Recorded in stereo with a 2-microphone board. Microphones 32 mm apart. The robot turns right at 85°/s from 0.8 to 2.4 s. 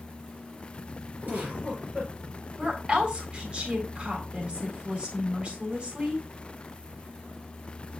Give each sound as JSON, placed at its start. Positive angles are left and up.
{"t": 1.2, "sound": "a giggle", "azimuth_deg": -90, "distance_m": 6.0}
{"t": 2.6, "sound": "a woman speaking", "side_deg": -30, "distance_m": 3.5}